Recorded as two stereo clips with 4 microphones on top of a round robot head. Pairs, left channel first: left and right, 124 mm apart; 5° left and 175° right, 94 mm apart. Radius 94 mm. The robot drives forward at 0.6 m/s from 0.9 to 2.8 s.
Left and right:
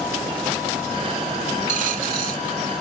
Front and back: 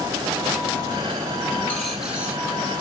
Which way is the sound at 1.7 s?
75° right.